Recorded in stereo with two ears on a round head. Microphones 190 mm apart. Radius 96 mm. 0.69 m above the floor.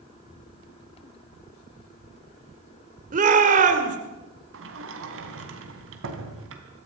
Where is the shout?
35° right (ahead or behind), 2.5 m.